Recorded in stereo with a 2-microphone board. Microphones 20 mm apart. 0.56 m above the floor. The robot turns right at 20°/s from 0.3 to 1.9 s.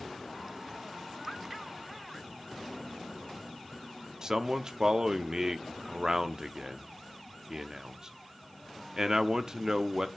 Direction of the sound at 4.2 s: 35° right (ahead or behind).